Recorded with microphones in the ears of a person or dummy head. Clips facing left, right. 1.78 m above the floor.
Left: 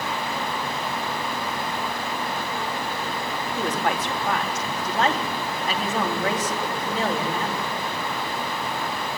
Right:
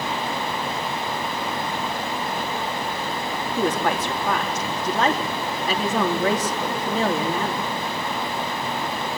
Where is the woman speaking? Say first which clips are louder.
Right 4 dB; 85° right, 3.5 m.